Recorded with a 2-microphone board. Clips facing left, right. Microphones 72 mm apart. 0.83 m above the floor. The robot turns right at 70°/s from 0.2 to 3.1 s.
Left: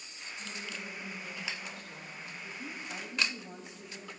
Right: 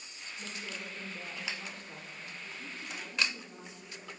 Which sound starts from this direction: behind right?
A woman speaking, at 0.4 s.